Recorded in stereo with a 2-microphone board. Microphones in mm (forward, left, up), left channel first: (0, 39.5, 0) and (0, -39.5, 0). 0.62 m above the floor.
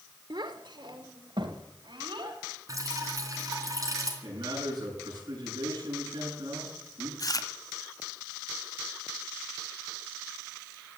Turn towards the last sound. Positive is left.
turn(degrees=50)  # may be behind; listen again after turning